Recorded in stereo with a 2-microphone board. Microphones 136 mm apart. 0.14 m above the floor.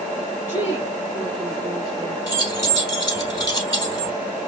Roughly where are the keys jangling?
Left.